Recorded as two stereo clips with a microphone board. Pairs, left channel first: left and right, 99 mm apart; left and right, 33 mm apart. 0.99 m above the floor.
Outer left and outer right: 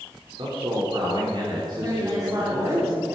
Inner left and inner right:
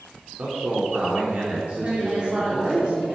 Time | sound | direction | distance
0.4 | a man speaking | 60° right (ahead or behind) | 3 m
1.8 | a woman speaking | 35° right (ahead or behind) | 2.5 m